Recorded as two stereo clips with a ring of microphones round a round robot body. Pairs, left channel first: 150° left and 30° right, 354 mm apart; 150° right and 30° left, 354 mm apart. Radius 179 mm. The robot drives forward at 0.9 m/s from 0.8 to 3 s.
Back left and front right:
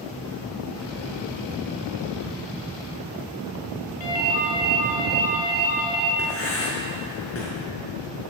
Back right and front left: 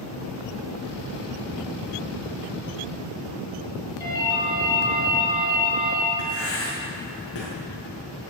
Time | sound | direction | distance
4.0 | a ringtone | 130° left | 4 m
6.2 | writing | 160° right | 5 m